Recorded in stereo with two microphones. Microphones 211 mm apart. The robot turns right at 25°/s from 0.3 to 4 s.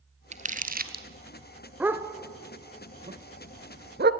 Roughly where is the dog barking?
Centre.